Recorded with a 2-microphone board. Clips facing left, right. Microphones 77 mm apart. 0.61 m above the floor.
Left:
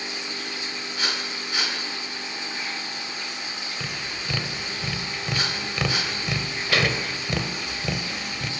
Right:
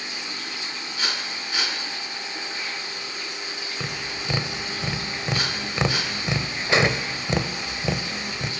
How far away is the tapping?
About 2 m.